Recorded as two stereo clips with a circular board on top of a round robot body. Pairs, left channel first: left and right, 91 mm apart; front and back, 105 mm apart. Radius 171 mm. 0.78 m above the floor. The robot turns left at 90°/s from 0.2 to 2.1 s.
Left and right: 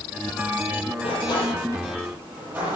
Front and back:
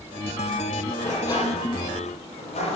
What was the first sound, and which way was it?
A sliding door, 85° left.